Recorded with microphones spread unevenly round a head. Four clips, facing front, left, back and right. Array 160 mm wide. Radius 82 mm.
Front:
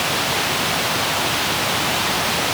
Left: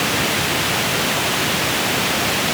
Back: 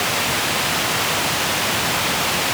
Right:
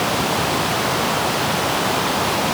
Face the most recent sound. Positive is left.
No sound to turn to.